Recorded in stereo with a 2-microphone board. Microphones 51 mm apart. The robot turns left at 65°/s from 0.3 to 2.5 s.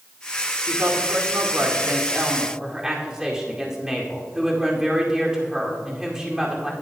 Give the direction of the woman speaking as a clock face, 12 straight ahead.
2 o'clock.